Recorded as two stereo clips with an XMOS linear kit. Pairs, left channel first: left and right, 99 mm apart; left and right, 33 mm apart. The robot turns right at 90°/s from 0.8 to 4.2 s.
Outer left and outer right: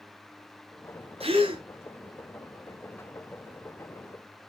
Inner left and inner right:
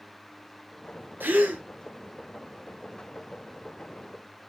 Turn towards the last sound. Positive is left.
turn(degrees=170)